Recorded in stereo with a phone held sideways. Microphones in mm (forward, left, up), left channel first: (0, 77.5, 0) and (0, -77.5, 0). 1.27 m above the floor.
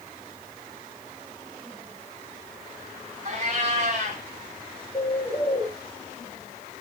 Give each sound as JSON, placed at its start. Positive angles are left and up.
{"t": 3.2, "sound": "a cat meowing", "side_deg": -45, "distance_m": 2.0}
{"t": 4.9, "sound": "a bird", "side_deg": 30, "distance_m": 4.5}